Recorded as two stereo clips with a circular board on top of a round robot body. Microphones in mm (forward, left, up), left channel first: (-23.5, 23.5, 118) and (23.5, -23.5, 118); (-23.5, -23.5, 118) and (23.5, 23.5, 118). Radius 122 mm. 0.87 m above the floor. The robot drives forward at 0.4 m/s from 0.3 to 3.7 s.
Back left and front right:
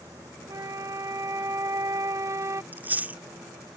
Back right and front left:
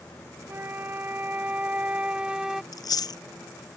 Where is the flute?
10° right; by 2.6 s 35° right.